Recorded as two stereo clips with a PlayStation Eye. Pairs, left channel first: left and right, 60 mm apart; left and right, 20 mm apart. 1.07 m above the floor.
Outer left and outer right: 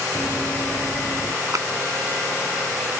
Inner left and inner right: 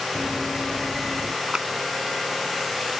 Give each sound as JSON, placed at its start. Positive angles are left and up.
{"t": 0.1, "sound": "running footsteps", "side_deg": 30}
{"t": 1.5, "sound": "a clap", "side_deg": -65}